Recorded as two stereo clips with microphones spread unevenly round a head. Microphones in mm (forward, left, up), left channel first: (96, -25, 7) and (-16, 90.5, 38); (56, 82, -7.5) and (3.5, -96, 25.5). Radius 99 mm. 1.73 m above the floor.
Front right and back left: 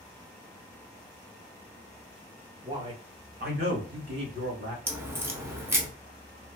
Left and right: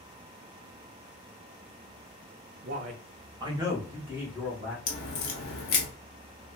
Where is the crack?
85° left, 0.7 m.